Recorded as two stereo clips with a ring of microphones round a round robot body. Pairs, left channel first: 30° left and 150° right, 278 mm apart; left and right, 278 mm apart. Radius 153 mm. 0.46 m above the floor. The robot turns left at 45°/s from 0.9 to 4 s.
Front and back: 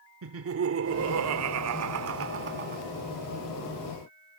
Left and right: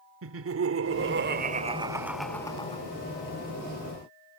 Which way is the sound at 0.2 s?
120° right.